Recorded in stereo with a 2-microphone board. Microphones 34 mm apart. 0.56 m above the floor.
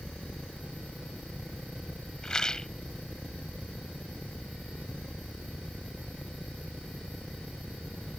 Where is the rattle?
20° left (ahead or behind).